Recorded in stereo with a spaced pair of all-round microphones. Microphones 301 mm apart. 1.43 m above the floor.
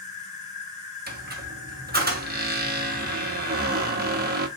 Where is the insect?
20° left (ahead or behind), 1.4 m.